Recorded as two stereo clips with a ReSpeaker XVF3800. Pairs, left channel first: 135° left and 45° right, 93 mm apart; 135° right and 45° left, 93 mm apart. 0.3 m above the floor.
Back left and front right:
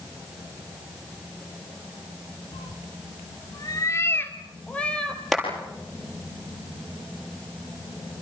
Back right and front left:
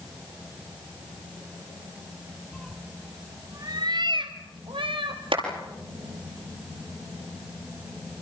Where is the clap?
45° left, 7.5 m.